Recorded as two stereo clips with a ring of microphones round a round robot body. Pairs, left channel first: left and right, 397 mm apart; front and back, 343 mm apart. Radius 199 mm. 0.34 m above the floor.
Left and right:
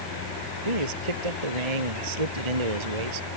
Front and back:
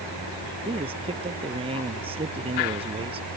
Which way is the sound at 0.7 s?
105° right.